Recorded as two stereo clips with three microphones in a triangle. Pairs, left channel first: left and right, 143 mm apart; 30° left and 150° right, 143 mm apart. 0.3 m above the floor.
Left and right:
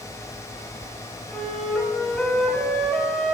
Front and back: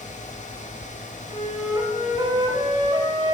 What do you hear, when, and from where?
1.3 s a flute: 170° left, 2 m